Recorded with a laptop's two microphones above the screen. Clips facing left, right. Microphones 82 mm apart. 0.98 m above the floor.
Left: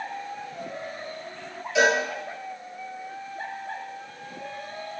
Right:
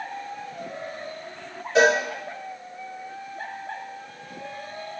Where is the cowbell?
40° right (ahead or behind), 4 m.